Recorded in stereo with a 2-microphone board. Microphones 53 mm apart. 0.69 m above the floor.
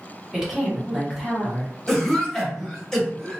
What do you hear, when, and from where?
0.3 s a woman speaking: 10° right (ahead or behind), 1.0 m
1.9 s a cough: 5° left (ahead or behind), 1.4 m